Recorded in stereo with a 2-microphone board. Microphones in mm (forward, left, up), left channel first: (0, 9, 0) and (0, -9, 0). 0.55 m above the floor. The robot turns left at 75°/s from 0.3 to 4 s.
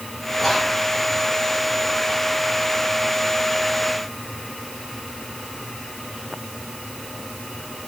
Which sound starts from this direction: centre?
Whispering, at 0.4 s.